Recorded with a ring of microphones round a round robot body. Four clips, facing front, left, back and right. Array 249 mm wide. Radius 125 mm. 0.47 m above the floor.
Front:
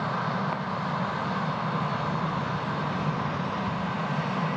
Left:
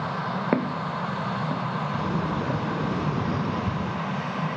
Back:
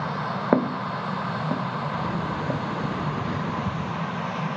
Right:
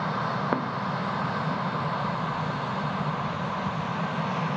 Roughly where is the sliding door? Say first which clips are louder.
Left 2 dB, back 1 dB; behind left.